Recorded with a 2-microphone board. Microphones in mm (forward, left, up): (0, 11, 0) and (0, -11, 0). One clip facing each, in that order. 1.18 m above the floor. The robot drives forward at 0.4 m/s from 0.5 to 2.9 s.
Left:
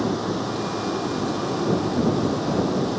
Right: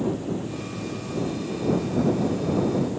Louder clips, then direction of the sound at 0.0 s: Left 3 dB; 80° left.